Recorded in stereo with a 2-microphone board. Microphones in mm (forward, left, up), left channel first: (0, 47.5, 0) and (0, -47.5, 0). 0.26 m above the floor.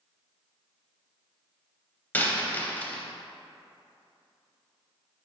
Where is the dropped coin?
20° left (ahead or behind), 0.5 m.